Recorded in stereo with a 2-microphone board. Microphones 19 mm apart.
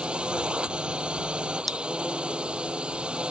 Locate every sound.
0.0 s a drone: 75° right (ahead or behind)
1.7 s scissors: 5° left (ahead or behind)